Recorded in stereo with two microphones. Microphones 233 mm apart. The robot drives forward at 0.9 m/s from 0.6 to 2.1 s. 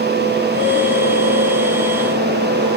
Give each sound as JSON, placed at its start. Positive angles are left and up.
{"t": 0.5, "sound": "a guitar", "side_deg": -75, "distance_m": 8.0}